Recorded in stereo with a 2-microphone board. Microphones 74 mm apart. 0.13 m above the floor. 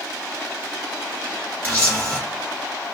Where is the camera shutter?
25° left (ahead or behind), 1.4 m.